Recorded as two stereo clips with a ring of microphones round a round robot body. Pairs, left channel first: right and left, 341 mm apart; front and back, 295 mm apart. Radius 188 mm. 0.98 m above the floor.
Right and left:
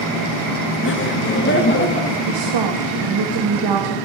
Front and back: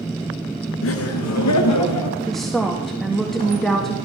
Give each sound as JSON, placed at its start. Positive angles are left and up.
{"t": 0.8, "sound": "laughter", "azimuth_deg": -40, "distance_m": 1.1}
{"t": 2.3, "sound": "a woman speaking", "azimuth_deg": 90, "distance_m": 1.9}